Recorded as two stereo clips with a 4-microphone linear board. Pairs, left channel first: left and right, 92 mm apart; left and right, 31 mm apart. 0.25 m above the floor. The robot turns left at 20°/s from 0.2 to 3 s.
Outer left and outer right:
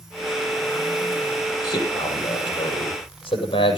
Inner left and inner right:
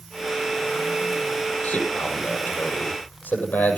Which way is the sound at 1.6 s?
40° left (ahead or behind).